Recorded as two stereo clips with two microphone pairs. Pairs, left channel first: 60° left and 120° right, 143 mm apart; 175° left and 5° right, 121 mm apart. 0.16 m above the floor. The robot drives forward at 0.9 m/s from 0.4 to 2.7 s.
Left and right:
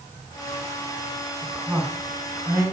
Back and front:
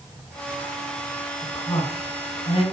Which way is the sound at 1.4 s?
170° left.